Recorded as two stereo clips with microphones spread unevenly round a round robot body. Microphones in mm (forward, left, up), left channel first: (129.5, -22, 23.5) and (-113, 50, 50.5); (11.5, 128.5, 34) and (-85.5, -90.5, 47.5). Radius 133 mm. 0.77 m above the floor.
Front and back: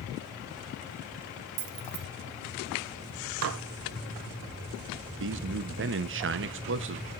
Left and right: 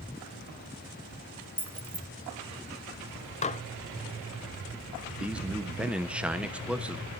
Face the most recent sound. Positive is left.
turn(degrees=160)